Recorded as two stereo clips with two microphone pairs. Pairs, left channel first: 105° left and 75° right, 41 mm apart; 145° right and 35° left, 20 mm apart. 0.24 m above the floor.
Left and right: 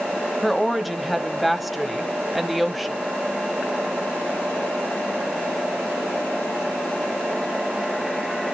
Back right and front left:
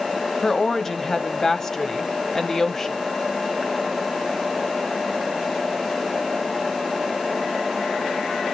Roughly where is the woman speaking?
Behind.